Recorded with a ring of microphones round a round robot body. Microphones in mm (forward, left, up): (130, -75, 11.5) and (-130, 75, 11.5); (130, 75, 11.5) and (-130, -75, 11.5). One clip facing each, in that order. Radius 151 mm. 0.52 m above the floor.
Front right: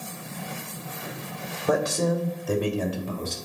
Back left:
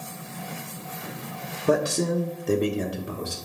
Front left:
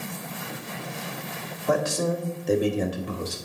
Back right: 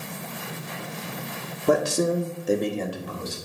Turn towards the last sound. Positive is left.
turn(degrees=70)